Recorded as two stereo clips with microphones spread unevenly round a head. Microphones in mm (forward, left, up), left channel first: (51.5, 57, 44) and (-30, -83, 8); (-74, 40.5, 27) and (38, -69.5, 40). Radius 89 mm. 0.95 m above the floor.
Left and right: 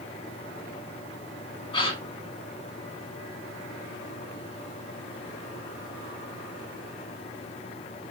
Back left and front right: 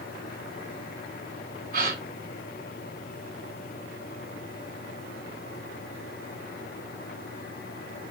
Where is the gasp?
Straight ahead, 3 m.